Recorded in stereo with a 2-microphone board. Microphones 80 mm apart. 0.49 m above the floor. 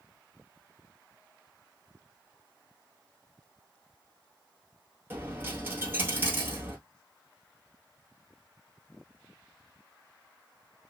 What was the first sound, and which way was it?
A dropped coin, 25° right (ahead or behind).